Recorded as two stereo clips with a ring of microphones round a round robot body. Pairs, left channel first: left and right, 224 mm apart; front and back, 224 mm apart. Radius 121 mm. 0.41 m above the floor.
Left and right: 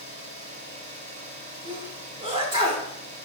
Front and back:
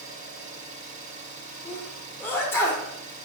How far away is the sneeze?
About 1.0 m.